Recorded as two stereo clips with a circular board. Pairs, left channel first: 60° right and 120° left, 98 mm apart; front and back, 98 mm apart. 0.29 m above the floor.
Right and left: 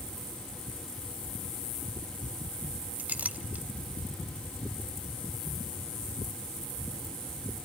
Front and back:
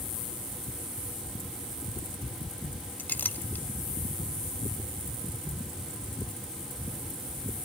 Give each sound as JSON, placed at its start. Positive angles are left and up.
{"t": 3.0, "sound": "a clink", "azimuth_deg": 60, "distance_m": 0.8}